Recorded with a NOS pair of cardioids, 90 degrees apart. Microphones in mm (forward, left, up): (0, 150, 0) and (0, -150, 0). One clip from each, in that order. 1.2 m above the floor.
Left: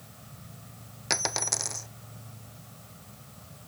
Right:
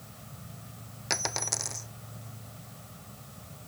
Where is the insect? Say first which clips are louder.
Right 1 dB; 5° right.